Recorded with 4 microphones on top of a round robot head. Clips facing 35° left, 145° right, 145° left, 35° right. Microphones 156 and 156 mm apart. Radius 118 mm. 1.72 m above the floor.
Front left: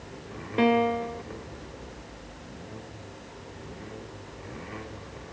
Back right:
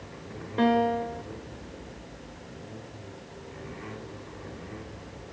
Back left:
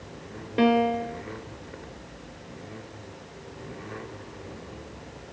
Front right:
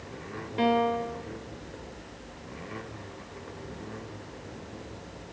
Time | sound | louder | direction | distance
0.6 | a piano | front left 1 dB, back left 3 dB | 110° left | 1.5 m